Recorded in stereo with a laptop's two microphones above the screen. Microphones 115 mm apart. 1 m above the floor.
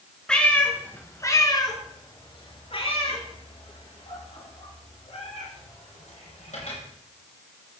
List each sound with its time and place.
0.3 s a cat meowing: 5° left (ahead or behind), 3.5 m; by 6.8 s 80° left, 8.5 m